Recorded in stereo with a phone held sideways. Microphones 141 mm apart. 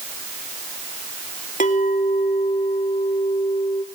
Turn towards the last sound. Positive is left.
turn(degrees=75)  # may be behind; listen again after turning